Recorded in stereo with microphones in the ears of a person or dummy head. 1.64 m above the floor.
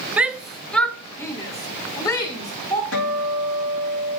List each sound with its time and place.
0.2 s a shout: 5° right (ahead or behind), 0.7 m; by 2.8 s 25° left (ahead or behind), 2 m
2.9 s a guitar: 75° left (ahead or behind), 3.5 m